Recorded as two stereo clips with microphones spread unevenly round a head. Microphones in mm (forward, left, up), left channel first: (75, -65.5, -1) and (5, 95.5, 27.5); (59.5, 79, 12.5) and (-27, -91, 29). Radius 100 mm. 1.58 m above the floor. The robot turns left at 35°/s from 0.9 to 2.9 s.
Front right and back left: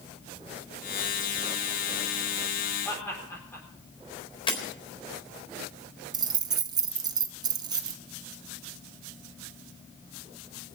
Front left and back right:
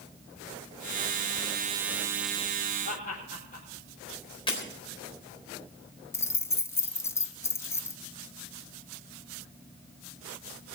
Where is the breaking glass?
5° right, 4 m.